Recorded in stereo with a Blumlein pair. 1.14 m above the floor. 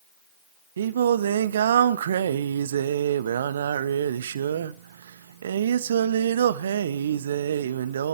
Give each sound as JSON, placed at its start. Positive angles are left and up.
{"t": 0.8, "sound": "singing", "azimuth_deg": -65, "distance_m": 0.7}